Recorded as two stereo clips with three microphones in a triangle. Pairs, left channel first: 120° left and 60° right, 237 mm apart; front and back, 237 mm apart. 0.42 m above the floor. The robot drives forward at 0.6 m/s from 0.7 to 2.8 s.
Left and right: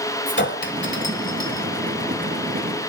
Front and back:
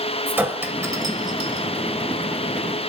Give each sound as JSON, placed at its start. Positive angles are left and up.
{"t": 0.3, "sound": "a clink", "azimuth_deg": 100, "distance_m": 1.7}